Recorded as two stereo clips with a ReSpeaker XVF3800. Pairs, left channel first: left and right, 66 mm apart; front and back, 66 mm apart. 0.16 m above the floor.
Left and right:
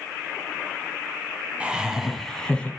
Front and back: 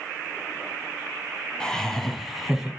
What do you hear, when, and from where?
1.6 s laughter: 60° right, 1.2 m; by 2.7 s 115° left, 1.2 m